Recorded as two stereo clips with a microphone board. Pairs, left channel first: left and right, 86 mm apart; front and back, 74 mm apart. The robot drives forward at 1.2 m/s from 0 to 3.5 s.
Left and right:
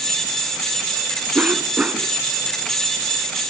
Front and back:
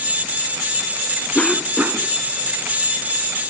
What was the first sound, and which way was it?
A cough, 45° right.